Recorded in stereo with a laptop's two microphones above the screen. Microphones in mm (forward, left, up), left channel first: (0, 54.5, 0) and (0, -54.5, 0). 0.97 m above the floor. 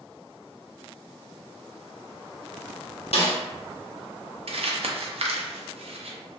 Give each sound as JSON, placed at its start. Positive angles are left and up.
{"t": 3.1, "sound": "a snare drum", "side_deg": 65, "distance_m": 0.8}
{"t": 4.5, "sound": "crumpling", "side_deg": -65, "distance_m": 0.5}